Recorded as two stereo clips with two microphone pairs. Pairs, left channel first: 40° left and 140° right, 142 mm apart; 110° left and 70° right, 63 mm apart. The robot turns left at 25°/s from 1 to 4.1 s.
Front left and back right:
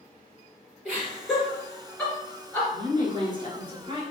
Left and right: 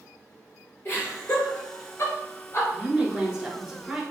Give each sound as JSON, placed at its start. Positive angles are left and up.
{"t": 0.8, "sound": "laughter", "azimuth_deg": 145, "distance_m": 2.0}
{"t": 2.7, "sound": "a woman speaking", "azimuth_deg": -115, "distance_m": 1.2}